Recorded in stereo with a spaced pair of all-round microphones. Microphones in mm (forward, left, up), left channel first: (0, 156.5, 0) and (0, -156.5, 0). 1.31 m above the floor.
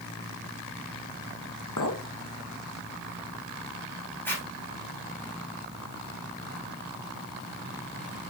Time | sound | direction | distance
1.8 | a clink | 70° left (ahead or behind) | 0.9 m
4.2 | a zipper | 5° left (ahead or behind) | 4 m